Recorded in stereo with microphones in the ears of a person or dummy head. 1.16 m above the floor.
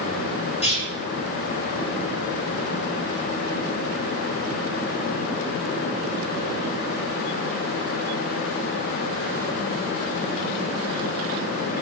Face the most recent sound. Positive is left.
turn(degrees=30)  # may be behind; listen again after turning